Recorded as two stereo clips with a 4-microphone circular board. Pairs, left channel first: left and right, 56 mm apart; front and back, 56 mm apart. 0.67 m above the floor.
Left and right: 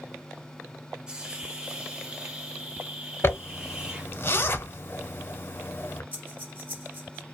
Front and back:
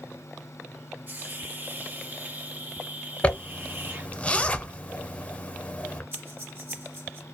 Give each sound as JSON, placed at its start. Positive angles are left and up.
{"t": 1.1, "sound": "a hiss", "azimuth_deg": -155, "distance_m": 0.8}
{"t": 3.2, "sound": "a zipper", "azimuth_deg": 60, "distance_m": 0.6}
{"t": 6.1, "sound": "breathing", "azimuth_deg": -140, "distance_m": 1.1}